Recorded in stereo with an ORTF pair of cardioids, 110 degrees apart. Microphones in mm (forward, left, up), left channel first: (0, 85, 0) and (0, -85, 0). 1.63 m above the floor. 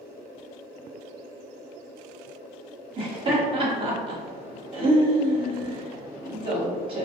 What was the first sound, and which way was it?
Laughter, 30° right.